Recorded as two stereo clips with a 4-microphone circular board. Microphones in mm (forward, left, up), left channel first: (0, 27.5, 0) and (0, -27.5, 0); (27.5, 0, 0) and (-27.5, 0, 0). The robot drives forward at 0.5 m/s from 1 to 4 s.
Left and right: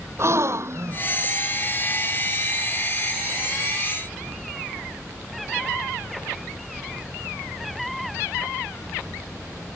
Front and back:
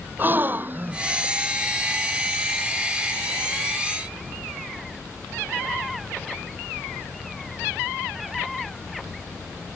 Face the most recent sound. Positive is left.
turn(degrees=-140)